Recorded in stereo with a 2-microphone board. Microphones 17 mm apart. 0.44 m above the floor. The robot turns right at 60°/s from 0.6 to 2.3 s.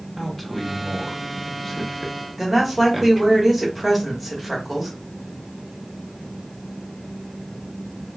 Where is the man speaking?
10° left (ahead or behind), 0.7 m; by 3.4 s 15° left (ahead or behind), 0.7 m.